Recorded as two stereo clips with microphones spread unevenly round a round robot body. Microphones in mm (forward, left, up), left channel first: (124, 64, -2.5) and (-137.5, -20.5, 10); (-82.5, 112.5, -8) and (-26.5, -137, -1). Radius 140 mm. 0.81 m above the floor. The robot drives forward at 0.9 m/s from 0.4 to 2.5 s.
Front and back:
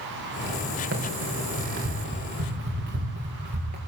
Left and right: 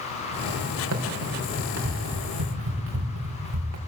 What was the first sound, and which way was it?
Running footsteps, 110° right.